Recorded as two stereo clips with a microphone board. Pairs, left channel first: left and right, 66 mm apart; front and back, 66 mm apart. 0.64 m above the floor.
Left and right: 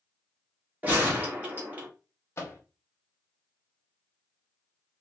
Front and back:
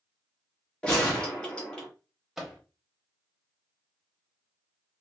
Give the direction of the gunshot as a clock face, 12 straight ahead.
2 o'clock.